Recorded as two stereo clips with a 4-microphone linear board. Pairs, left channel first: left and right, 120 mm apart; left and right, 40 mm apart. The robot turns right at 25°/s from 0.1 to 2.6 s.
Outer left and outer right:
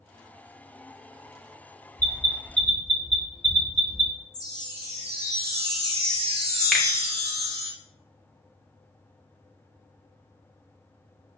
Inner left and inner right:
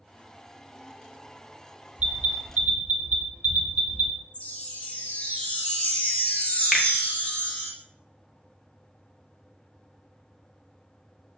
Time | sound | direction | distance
2.0 | an alarm | 30° right (ahead or behind) | 0.8 m
4.3 | a chime | 35° left (ahead or behind) | 0.8 m
6.7 | a finger snap | 5° left (ahead or behind) | 0.5 m